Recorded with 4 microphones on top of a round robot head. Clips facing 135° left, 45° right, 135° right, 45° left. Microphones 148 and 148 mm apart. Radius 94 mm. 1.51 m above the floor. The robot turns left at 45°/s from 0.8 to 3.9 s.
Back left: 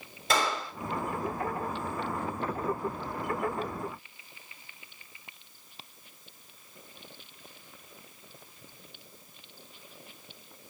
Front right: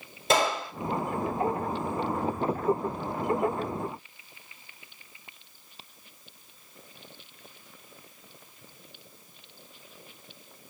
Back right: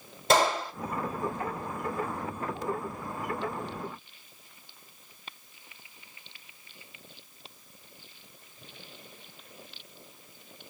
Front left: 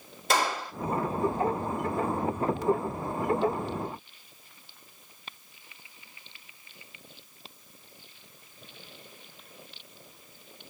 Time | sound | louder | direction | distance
0.3 | a gunshot | front right 4 dB, back right 4 dB | 95° right | 1.2 m